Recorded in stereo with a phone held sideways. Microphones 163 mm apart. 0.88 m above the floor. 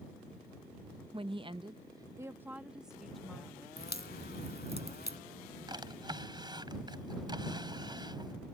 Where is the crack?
80° left.